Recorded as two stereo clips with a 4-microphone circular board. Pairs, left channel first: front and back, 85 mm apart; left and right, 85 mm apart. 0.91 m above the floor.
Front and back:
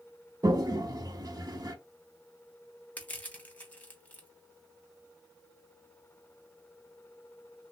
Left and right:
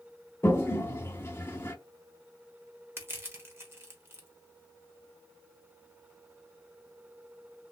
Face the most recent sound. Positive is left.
turn(degrees=-60)